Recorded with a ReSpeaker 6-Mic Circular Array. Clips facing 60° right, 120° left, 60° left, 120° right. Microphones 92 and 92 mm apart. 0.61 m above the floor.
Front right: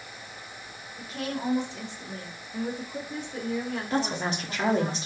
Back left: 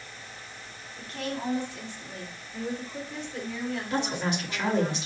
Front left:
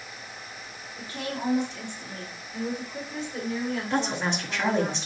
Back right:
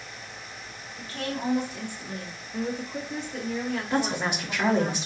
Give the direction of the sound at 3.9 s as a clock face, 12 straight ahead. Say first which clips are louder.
Front right 2 dB, back right 1 dB; 1 o'clock.